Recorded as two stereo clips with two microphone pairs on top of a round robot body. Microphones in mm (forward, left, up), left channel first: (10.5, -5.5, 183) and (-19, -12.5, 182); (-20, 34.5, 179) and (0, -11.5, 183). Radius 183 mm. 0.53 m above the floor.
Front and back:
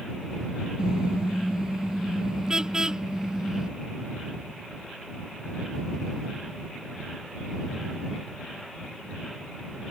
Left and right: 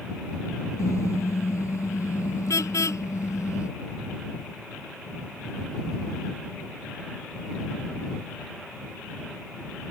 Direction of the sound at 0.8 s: 125° left.